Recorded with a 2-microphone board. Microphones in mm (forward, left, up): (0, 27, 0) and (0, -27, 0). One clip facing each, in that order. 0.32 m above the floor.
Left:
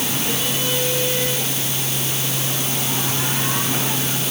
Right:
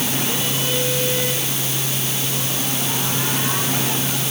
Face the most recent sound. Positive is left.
No sound to turn to.